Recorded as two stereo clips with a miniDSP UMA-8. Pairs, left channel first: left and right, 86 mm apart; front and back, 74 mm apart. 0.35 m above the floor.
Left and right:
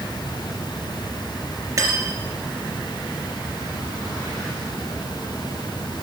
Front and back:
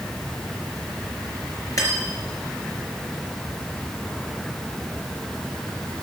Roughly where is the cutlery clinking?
Ahead right.